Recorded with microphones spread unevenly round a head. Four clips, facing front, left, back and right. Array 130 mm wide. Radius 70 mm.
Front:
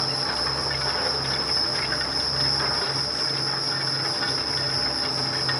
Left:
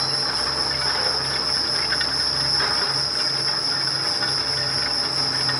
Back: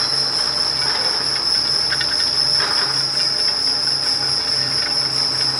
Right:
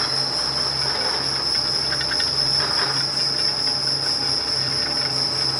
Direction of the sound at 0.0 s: 115° right.